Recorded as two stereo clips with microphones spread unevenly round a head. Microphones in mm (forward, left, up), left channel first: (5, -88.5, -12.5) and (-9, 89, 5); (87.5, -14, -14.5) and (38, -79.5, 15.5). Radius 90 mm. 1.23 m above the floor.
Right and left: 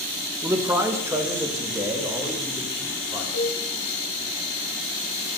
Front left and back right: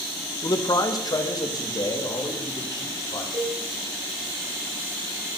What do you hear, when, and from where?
0.4 s a man speaking: 20° left, 1.2 m; by 3.2 s 15° left, 3.5 m
3.3 s a cowbell: 115° right, 5 m